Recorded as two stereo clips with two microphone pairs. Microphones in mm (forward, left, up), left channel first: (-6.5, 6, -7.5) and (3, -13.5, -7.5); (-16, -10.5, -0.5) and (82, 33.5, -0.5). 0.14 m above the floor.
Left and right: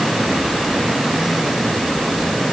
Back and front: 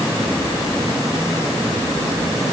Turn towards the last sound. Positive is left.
No sound to turn to.